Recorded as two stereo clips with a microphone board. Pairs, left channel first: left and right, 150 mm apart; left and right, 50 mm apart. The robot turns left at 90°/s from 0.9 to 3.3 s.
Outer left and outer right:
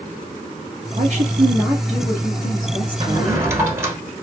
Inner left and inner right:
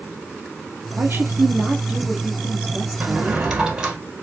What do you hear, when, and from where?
0.9 s a woman speaking: 95° right, 2 m; by 3.5 s 55° left, 2 m
3.0 s a drawer: 35° right (ahead or behind), 1.5 m; by 4.0 s 15° right (ahead or behind), 1.5 m